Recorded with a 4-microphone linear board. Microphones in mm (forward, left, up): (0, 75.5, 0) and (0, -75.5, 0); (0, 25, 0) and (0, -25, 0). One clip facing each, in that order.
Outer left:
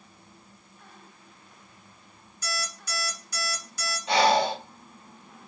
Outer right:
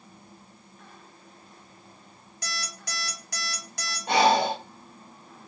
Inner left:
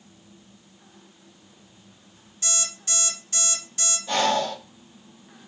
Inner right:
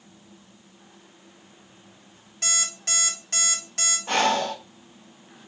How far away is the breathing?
About 1.5 m.